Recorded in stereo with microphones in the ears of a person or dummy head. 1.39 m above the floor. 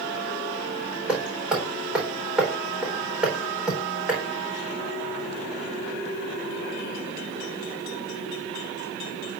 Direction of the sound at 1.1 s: Centre (ahead or behind).